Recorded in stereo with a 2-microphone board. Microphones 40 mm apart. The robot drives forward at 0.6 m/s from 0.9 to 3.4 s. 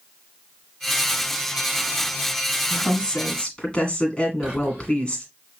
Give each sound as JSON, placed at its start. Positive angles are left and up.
{"t": 2.7, "sound": "a woman speaking", "side_deg": 25, "distance_m": 1.8}
{"t": 4.4, "sound": "whispering", "side_deg": -15, "distance_m": 2.0}